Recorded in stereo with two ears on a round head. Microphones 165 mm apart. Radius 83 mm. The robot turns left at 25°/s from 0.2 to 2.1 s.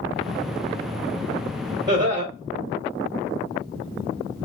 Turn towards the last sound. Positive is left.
turn(degrees=-20)  # may be behind; listen again after turning